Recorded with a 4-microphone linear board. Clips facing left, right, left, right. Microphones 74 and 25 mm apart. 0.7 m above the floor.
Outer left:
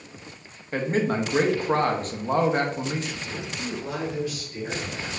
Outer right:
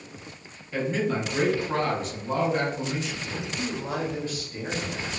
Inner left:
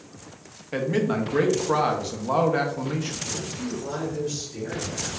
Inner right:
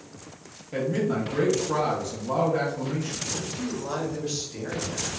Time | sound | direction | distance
0.7 | a man speaking | 45° left (ahead or behind) | 0.7 m
3.2 | a man speaking | 35° right (ahead or behind) | 1.2 m